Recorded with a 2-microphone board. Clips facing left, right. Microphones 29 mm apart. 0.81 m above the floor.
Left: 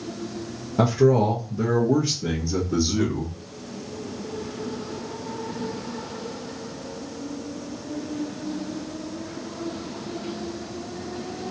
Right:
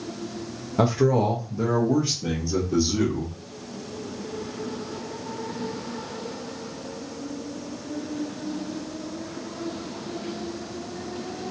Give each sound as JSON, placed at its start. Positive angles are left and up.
{"t": 0.8, "sound": "a man speaking", "side_deg": -5, "distance_m": 0.8}